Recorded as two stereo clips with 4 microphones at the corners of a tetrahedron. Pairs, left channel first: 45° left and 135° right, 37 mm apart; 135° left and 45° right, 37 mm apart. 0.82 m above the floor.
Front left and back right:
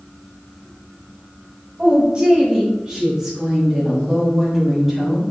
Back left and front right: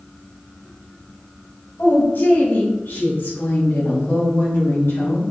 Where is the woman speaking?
165° left, 4 m; by 5.2 s 140° left, 5.5 m.